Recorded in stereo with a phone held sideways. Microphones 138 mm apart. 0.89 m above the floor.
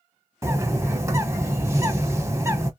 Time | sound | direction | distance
0.4 | a bird | 20° right (ahead or behind) | 0.9 m